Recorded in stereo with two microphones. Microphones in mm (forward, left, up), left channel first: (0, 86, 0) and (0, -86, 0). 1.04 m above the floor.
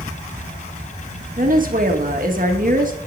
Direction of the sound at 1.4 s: 55° right (ahead or behind).